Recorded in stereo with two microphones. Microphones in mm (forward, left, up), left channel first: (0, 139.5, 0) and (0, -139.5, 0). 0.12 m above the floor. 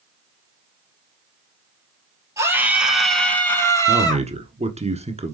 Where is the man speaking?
25° right (ahead or behind), 1.1 m.